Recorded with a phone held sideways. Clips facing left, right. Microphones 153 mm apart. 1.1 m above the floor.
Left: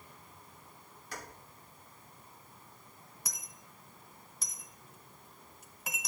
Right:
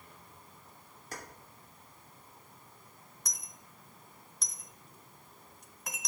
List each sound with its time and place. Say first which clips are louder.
1.1 s keys jangling: even; 45° right (ahead or behind), 2 m
3.2 s a dropped coin: even; 5° left (ahead or behind), 0.9 m